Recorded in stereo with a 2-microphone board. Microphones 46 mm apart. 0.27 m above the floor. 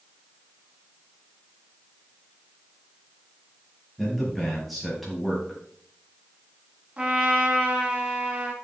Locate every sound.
4.0 s a man speaking: centre (ahead or behind), 5.5 m
7.0 s a trumpet: 25° right (ahead or behind), 3 m